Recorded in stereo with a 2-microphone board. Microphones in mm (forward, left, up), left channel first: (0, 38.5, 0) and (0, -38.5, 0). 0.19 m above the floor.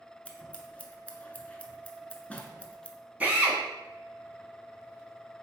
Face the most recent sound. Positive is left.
turn(degrees=-20)  # may be behind; listen again after turning